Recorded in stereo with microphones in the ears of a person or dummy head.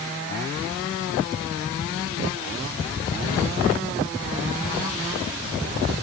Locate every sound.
Only background noise.